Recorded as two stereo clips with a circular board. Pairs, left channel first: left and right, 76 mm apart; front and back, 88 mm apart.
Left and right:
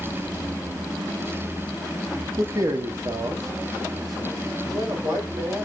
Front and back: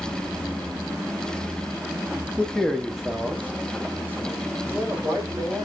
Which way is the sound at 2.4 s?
70° right.